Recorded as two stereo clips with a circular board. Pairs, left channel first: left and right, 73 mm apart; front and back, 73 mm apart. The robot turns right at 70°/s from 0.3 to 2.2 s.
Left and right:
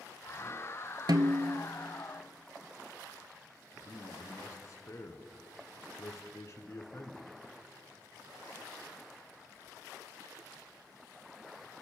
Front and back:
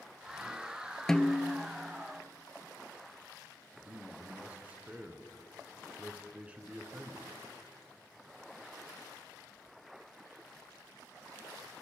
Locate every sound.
1.1 s a snare drum: 85° right, 0.7 m; by 1.6 s 45° right, 0.7 m
3.8 s a man speaking: 115° left, 1.6 m